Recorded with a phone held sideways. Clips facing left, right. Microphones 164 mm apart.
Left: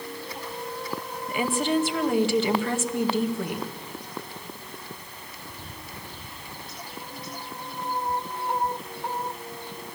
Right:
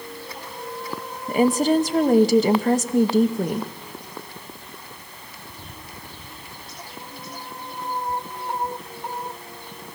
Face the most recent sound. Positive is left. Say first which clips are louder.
# right 7 dB
turn(degrees=-40)  # may be behind; listen again after turning